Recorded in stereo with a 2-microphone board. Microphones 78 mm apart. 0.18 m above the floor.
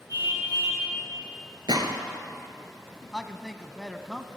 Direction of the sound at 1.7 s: 70° right (ahead or behind).